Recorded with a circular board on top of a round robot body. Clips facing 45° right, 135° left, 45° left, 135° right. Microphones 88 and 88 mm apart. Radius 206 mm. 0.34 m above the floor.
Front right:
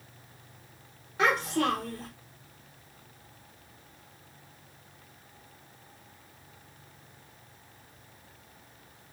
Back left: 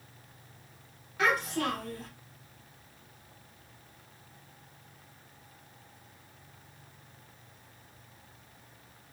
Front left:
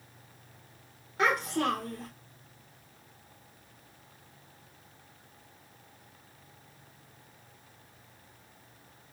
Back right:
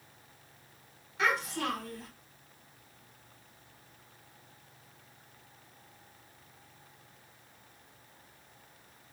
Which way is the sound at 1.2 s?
10° left.